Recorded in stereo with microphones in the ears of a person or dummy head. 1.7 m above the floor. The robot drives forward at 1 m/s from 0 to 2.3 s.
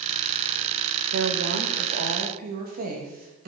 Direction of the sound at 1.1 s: 70° right (ahead or behind).